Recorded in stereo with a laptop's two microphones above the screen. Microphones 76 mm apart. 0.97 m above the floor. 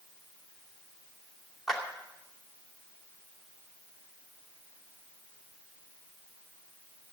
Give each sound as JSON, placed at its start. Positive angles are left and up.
{"t": 1.7, "sound": "a clap", "side_deg": 0, "distance_m": 2.5}